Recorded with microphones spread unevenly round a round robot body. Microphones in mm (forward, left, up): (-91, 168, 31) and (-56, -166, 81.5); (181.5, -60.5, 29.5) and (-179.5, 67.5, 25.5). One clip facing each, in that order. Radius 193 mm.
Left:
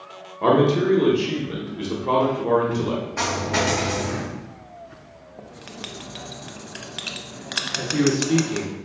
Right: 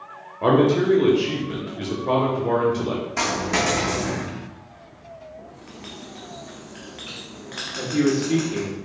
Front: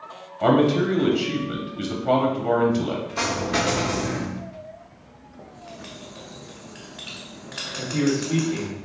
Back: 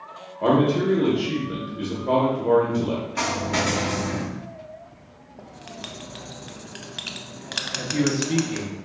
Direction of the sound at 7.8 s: 150° left.